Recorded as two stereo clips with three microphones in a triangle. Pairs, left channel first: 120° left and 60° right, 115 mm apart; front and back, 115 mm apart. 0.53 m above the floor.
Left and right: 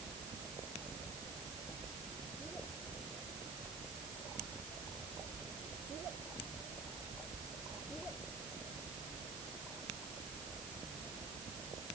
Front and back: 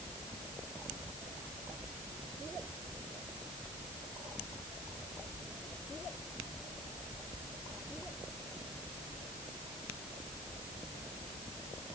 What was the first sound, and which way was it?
Only background noise.